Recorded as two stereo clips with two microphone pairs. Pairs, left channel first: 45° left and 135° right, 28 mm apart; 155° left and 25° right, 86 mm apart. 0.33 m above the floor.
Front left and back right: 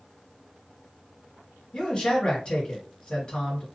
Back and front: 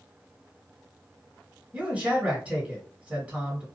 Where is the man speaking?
45° left, 1.7 m.